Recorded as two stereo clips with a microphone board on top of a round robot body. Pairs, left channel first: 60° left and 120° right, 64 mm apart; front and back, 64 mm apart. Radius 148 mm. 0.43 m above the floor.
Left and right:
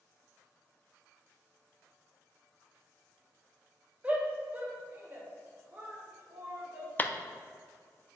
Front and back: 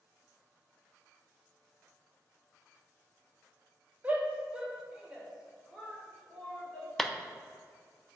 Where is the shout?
155° right, 1.4 m; by 6.9 s 80° right, 2 m.